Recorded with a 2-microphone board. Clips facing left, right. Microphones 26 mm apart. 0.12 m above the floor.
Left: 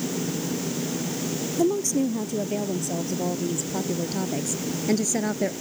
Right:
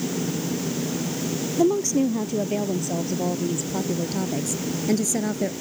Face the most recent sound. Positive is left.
turn(degrees=20)  # may be behind; listen again after turning